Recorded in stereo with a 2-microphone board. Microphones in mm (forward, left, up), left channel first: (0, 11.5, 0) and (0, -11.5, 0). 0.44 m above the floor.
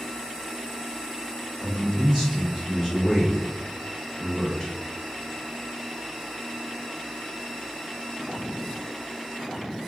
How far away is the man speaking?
About 1.5 m.